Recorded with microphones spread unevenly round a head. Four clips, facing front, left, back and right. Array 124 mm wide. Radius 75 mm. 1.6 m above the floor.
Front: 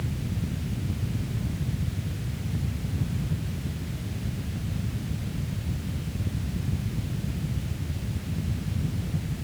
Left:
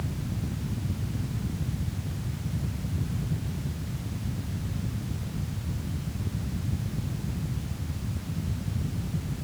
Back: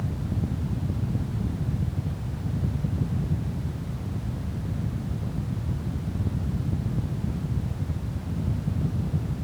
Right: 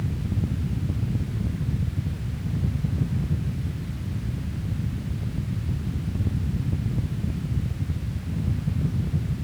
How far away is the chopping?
I don't hear chopping.